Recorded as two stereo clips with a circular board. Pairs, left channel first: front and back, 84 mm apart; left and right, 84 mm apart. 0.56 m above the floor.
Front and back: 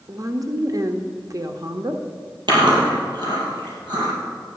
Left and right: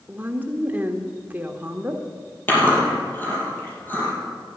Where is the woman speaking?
155° right, 1.1 m.